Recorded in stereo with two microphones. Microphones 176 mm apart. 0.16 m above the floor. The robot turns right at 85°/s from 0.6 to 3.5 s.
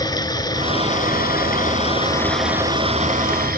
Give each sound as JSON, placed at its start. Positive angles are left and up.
{"t": 0.0, "sound": "running water", "azimuth_deg": 25, "distance_m": 1.2}